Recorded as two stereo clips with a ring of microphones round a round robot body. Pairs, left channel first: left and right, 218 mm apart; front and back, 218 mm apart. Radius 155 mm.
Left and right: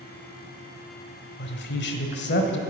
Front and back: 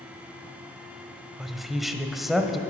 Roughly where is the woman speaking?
Left.